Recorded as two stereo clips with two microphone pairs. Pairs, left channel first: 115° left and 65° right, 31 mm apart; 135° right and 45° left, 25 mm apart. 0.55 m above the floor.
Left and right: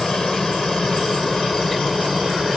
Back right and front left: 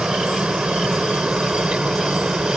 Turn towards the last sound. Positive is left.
turn(degrees=30)